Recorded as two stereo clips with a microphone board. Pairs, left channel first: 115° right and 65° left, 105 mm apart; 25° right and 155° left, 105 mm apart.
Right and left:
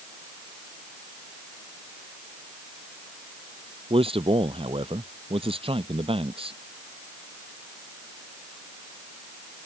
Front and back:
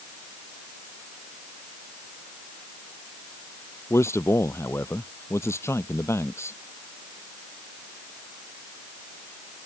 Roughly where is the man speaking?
Ahead left.